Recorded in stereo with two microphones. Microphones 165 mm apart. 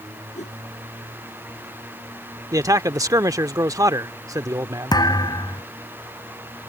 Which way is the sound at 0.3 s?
45° left (ahead or behind).